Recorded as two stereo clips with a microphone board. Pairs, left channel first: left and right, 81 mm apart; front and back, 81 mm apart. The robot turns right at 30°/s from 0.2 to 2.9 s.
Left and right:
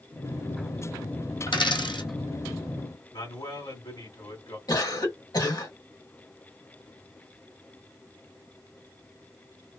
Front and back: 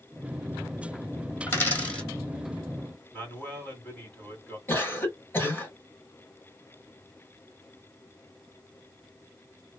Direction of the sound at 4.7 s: 65° left.